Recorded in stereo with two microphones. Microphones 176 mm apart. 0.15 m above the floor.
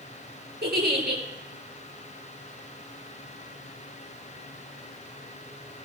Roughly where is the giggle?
Right.